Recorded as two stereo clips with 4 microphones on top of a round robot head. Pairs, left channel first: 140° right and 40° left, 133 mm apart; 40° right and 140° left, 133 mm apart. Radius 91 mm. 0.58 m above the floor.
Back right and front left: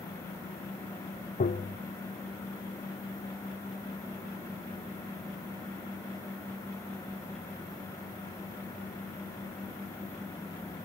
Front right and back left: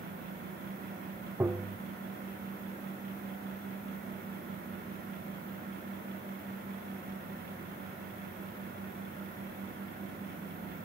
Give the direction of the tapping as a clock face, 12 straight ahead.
5 o'clock.